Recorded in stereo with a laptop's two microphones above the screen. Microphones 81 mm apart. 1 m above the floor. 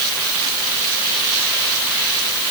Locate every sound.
Only background noise.